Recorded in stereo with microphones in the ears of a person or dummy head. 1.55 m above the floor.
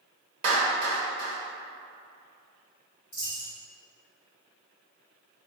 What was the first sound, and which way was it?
A clap, 40° right (ahead or behind).